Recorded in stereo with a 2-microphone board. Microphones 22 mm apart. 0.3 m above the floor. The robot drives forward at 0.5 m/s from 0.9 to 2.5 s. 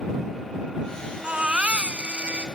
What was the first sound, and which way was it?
A baby crying, 60° right (ahead or behind).